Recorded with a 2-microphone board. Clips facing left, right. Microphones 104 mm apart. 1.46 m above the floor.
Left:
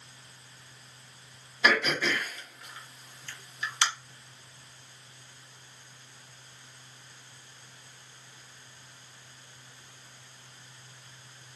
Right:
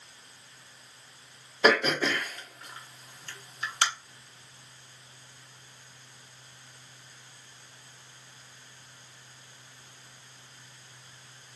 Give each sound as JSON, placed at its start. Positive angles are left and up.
{"t": 1.6, "sound": "throat clearing", "side_deg": -45, "distance_m": 0.9}